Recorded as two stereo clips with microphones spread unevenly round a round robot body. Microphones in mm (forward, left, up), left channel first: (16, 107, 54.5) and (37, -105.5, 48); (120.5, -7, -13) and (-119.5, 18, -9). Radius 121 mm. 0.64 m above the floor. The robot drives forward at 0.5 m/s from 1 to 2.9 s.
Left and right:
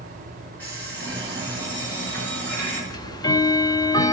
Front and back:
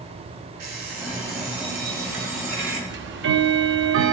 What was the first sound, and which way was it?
An alarm clock, straight behind.